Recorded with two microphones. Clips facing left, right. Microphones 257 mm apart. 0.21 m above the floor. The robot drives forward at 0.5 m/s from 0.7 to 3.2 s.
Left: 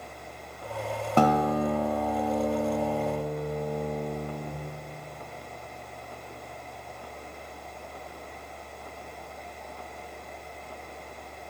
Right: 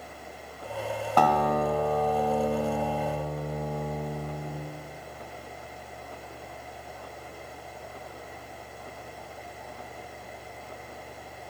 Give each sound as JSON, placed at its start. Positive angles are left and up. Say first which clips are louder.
{"t": 1.2, "sound": "a guitar", "louder": "left 2 dB", "side_deg": 25, "distance_m": 1.2}